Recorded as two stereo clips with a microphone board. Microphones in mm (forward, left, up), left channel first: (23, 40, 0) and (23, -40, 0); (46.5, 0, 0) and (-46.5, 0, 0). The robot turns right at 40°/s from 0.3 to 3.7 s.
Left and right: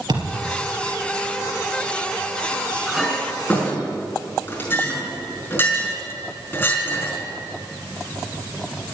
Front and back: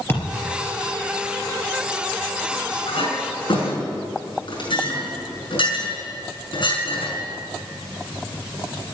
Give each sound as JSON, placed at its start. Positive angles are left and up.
{"t": 0.1, "sound": "a thud", "azimuth_deg": -65, "distance_m": 3.5}
{"t": 2.9, "sound": "a clink", "azimuth_deg": -5, "distance_m": 5.0}